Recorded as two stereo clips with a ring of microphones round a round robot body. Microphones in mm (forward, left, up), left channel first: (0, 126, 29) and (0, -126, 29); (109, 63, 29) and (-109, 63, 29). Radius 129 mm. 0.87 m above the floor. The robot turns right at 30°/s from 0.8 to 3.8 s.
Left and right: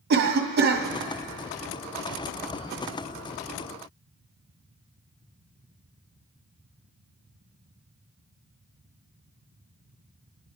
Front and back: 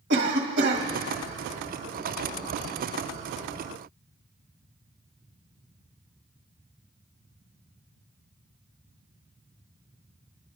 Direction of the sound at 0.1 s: 140° right.